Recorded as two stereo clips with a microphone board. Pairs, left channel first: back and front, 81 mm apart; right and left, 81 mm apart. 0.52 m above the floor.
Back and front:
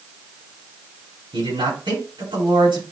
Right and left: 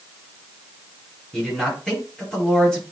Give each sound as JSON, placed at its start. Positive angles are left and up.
{"t": 1.3, "sound": "a man speaking", "azimuth_deg": -10, "distance_m": 5.5}